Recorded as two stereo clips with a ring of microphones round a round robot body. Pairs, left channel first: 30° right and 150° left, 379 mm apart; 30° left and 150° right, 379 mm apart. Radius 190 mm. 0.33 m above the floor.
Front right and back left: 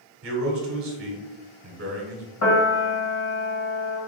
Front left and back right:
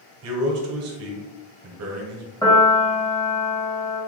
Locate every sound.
0.2 s a man speaking: 175° right, 1.3 m
2.4 s a piano: 45° right, 1.6 m